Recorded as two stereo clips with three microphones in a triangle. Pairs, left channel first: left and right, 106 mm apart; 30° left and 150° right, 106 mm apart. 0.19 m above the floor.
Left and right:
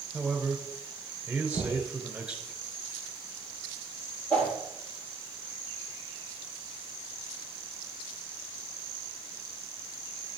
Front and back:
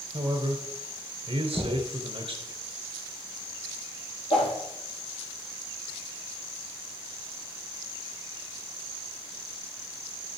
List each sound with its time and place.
0.1 s a man speaking: 170° right, 2.5 m
1.5 s knocking: 130° left, 2.5 m
4.3 s a whoosh: 15° left, 5.5 m